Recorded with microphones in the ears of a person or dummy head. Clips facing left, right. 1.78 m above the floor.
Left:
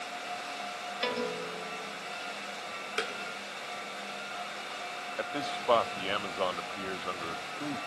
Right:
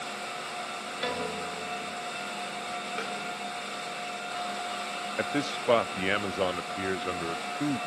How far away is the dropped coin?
I don't hear a dropped coin.